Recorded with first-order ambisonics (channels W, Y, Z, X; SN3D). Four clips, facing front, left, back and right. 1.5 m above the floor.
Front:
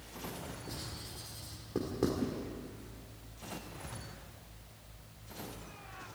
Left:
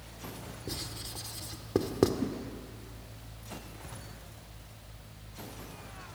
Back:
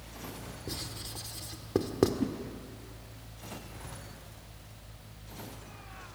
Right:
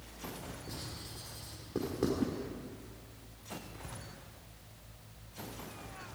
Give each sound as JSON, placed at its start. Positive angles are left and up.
{"t": 0.7, "sound": "writing", "azimuth_deg": 135, "distance_m": 1.6}
{"t": 2.2, "sound": "a whoosh", "azimuth_deg": -160, "distance_m": 0.8}